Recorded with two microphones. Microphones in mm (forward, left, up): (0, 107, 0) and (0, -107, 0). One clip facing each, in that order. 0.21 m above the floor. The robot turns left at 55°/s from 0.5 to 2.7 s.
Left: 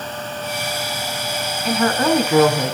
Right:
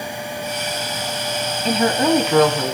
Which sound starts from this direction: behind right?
A woman speaking, at 1.6 s.